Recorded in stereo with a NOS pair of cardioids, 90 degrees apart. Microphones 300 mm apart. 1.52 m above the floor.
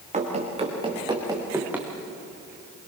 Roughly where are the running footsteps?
Ahead right.